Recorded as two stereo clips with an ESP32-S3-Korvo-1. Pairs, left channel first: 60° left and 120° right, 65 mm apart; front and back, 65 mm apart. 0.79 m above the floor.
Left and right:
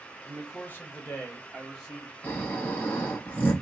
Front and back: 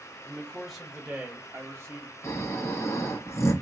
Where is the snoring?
5° left, 1.0 m.